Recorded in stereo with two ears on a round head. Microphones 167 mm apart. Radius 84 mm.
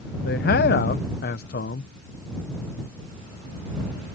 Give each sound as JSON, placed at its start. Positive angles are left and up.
{"t": 0.2, "sound": "a man speaking", "side_deg": 50}